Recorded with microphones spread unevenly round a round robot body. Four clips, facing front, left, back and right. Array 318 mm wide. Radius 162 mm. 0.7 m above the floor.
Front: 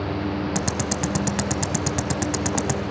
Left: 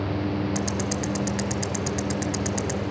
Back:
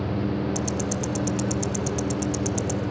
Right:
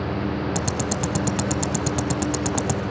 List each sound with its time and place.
0.6 s ticking: 45° right, 0.9 m